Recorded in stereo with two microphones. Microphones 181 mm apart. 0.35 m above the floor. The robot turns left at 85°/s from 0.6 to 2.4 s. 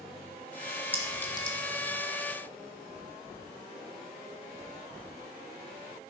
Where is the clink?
10° right (ahead or behind), 1.2 m; by 1.6 s 40° left (ahead or behind), 1.2 m.